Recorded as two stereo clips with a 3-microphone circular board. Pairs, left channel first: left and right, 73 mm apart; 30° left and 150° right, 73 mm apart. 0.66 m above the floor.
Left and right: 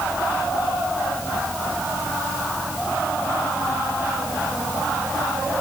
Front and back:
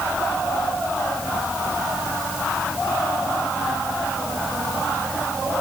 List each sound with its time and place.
Only background noise.